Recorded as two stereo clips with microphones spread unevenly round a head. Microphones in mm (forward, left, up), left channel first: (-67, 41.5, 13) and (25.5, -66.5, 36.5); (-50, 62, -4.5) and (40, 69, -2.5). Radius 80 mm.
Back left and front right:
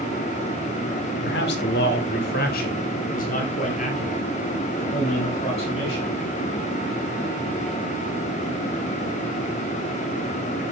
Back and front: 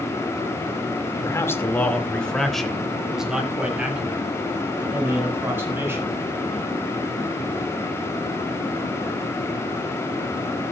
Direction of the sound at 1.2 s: 130° left.